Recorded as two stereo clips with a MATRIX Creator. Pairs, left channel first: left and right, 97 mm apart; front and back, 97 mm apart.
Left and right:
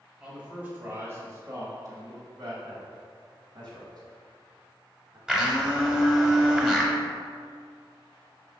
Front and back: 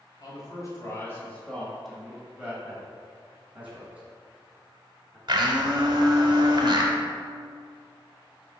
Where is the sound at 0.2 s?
15° right, 2 m; by 2.5 s 110° right, 2 m.